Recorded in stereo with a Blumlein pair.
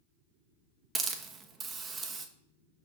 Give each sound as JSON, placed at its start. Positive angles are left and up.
{"t": 0.9, "sound": "a hiss", "azimuth_deg": -15, "distance_m": 1.0}